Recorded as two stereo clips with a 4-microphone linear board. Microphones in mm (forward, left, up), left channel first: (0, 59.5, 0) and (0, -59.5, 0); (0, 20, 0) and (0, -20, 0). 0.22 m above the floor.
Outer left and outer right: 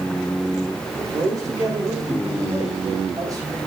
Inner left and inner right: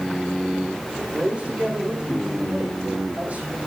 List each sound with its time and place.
1.0 s a man speaking: 30° right (ahead or behind), 10 m